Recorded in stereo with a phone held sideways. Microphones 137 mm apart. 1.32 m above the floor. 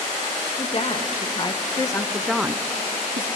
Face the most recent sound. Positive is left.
turn(degrees=-70)  # may be behind; listen again after turning